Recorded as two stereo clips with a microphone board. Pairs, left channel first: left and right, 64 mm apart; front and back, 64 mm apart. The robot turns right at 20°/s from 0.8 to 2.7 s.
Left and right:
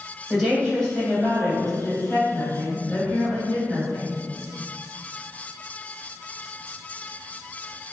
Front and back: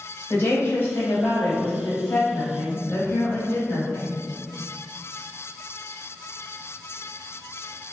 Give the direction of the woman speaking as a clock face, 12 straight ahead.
12 o'clock.